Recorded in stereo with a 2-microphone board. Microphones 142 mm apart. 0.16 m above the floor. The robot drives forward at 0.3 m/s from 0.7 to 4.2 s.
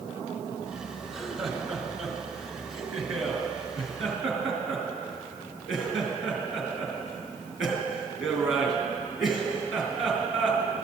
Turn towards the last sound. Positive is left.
turn(degrees=0)  # may be behind; listen again after turning